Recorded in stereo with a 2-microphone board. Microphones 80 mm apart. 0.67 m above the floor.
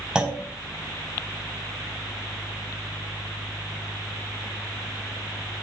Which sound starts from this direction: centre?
A clunk, at 0.1 s.